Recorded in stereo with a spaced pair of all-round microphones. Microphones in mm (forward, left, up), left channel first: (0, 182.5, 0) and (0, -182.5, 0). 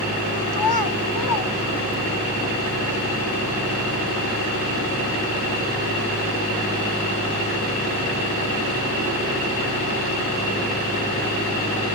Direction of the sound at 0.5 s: 75° left (ahead or behind).